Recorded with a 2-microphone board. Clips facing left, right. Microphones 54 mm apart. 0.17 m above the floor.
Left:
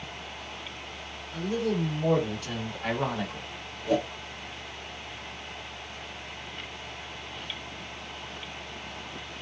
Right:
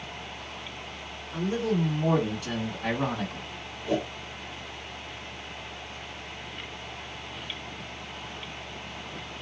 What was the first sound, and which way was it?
A man speaking, 20° right (ahead or behind).